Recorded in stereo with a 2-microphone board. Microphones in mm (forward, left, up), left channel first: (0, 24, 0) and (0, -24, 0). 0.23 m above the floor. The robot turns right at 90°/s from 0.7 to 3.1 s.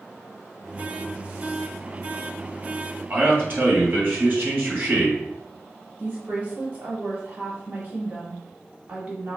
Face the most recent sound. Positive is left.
turn(degrees=-30)  # may be behind; listen again after turning